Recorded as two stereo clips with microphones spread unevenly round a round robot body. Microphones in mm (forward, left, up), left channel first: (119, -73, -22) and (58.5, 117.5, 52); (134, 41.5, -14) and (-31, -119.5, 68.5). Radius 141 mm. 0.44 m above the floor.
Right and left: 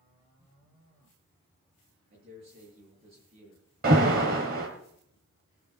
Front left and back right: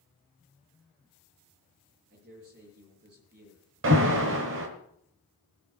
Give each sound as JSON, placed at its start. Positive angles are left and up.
{"t": 2.1, "sound": "a man speaking", "azimuth_deg": 170, "distance_m": 7.5}
{"t": 3.8, "sound": "an alarm", "azimuth_deg": 170, "distance_m": 1.4}